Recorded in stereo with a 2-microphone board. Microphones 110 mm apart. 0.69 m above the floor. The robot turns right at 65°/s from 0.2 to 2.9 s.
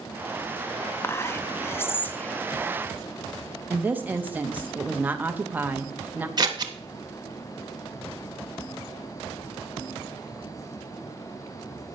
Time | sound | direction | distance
1.0 | whispering | 20° left (ahead or behind) | 0.6 m
3.7 | a woman speaking | 15° right (ahead or behind) | 0.8 m
6.4 | scissors | 40° right (ahead or behind) | 0.9 m